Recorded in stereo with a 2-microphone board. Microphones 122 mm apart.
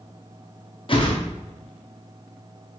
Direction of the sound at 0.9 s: 45° left (ahead or behind).